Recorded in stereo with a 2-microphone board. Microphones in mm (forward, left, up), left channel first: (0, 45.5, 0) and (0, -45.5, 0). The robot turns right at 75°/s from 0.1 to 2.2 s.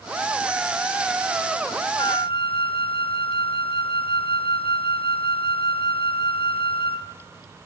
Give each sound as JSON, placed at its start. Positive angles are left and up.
{"t": 2.0, "sound": "a flute", "side_deg": 65, "distance_m": 1.0}